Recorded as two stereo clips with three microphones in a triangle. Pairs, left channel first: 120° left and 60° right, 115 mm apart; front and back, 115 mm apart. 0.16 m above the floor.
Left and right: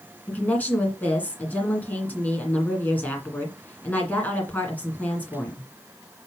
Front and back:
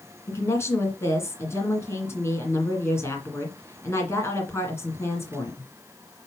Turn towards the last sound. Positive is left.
turn(degrees=50)